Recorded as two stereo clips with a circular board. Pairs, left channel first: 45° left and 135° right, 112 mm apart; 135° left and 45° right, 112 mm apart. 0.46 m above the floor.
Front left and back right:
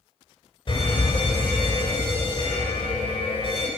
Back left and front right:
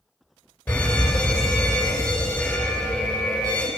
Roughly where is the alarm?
Ahead left.